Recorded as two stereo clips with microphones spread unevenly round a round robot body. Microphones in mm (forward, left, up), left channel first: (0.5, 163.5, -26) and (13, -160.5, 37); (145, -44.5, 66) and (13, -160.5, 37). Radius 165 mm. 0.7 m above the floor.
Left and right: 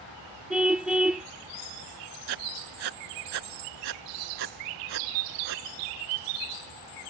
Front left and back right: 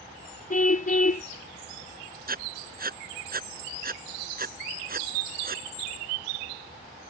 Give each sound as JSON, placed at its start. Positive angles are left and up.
{"t": 0.5, "sound": "a car horn", "azimuth_deg": 0}
{"t": 2.3, "sound": "writing", "azimuth_deg": -105}